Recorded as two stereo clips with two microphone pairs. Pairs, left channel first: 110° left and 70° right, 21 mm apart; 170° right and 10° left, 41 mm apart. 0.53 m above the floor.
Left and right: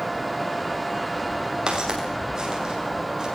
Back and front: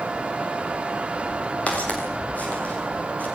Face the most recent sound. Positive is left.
turn(degrees=-125)